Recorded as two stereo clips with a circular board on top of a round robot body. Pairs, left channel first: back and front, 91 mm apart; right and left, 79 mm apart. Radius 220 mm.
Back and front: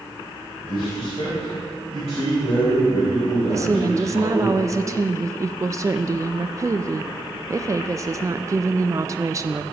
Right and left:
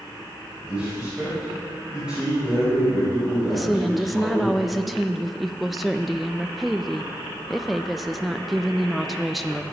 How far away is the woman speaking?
About 0.6 m.